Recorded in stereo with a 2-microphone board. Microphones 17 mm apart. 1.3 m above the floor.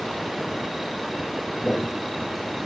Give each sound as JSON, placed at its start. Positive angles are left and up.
{"t": 1.6, "sound": "footsteps", "side_deg": -10, "distance_m": 1.4}